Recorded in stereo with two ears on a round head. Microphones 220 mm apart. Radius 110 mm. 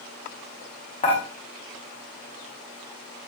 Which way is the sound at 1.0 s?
25° left (ahead or behind).